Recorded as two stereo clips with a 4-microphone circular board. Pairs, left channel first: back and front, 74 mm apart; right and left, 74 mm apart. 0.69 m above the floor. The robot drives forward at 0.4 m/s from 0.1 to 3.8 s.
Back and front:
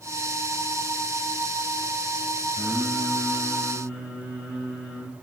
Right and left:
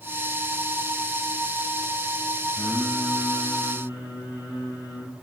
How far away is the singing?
About 1.4 m.